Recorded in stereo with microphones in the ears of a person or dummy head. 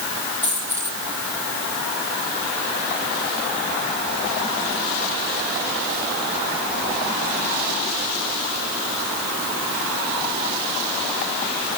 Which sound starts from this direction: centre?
A dropped coin, at 0.4 s.